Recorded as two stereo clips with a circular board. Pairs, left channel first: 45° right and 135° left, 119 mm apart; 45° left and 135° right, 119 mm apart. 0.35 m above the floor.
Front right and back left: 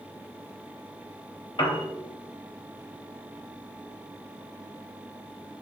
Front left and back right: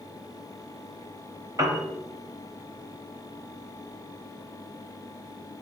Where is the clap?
No clap in this recording.